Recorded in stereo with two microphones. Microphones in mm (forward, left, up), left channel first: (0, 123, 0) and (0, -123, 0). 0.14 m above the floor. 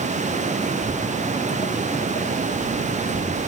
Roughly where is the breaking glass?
I don't hear breaking glass.